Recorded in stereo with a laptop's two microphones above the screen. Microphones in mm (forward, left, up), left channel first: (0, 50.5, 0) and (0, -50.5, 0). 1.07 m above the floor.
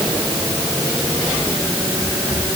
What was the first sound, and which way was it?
Only background noise.